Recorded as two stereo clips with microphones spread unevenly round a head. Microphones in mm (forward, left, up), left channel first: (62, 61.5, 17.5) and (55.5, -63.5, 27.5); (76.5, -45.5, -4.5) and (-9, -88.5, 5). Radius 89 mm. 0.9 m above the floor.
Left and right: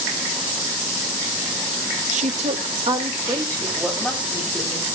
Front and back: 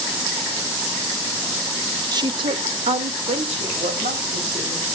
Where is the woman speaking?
110° right, 1.4 m; by 4.8 s 175° left, 4 m.